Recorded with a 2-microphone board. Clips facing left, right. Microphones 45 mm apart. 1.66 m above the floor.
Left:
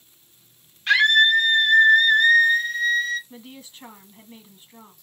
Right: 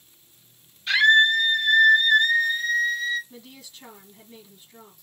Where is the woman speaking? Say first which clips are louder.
Left 3 dB; 30° left (ahead or behind), 2 m.